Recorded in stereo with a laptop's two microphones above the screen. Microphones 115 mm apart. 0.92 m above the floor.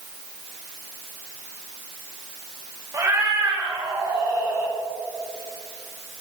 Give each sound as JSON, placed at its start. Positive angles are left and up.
{"t": 2.9, "sound": "a cat meowing", "side_deg": -30, "distance_m": 1.6}